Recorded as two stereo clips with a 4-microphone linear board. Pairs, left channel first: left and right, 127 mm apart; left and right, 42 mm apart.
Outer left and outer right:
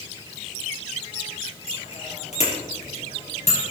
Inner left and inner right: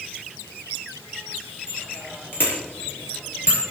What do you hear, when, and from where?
1.7 s a bicycle bell: 55° left (ahead or behind), 5 m; by 3.7 s 60° left (ahead or behind), 6.5 m